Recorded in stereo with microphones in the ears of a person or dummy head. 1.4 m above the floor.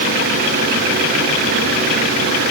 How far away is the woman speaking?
I don't hear a woman speaking.